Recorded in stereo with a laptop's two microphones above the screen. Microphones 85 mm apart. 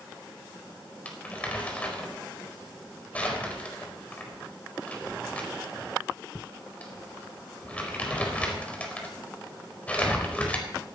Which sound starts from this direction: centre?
Crumpling, at 1.1 s.